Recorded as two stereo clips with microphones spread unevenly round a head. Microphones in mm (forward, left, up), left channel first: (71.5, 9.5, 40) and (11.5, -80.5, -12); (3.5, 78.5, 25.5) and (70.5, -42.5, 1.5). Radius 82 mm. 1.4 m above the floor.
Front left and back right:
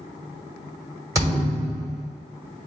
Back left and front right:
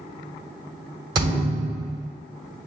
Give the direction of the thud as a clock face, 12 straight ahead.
2 o'clock.